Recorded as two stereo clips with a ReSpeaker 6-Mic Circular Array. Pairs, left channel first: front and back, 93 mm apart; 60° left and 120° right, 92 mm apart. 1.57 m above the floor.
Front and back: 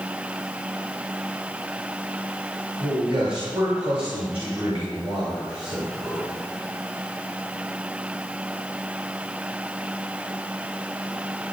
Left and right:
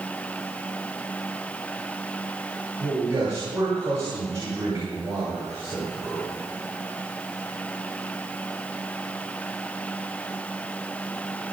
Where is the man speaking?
Straight behind, 7.5 m.